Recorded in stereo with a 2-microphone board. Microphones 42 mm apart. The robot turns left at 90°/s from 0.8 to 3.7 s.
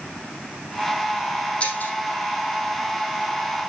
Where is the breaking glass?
30° left (ahead or behind), 4.5 m; by 1.9 s 55° left (ahead or behind), 4.5 m.